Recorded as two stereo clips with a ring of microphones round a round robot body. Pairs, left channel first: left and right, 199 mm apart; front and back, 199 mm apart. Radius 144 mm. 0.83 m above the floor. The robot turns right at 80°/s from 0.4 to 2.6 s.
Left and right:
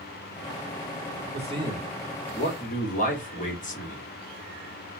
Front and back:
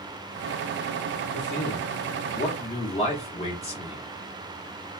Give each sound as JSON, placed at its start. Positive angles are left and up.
{"t": 1.3, "sound": "a man speaking", "azimuth_deg": -50, "distance_m": 1.1}